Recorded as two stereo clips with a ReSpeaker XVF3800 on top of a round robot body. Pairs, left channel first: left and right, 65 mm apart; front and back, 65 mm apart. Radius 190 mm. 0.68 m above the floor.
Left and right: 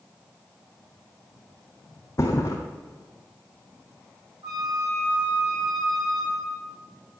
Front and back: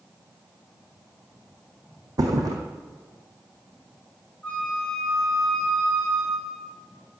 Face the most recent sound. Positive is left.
turn(degrees=-75)